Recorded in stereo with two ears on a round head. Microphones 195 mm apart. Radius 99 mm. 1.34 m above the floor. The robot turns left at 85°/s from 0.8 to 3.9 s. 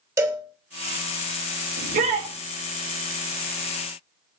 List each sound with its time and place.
0.2 s a cowbell: 15° right (ahead or behind), 3 m
1.8 s a shout: 120° right, 5 m; by 2.3 s 170° right, 5 m